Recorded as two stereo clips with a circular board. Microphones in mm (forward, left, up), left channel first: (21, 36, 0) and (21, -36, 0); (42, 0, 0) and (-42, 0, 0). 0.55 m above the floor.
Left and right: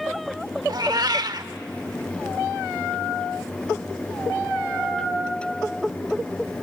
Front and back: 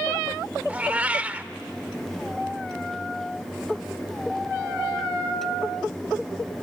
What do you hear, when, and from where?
0.7 s a cat meowing: 110° right, 0.7 m